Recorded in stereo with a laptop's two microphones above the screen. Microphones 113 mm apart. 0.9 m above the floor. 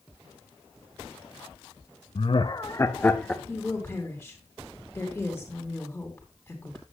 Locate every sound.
2.1 s laughter: 55° left (ahead or behind), 0.5 m; by 3.4 s 10° left (ahead or behind), 0.8 m
3.5 s a woman speaking: 25° left (ahead or behind), 2.5 m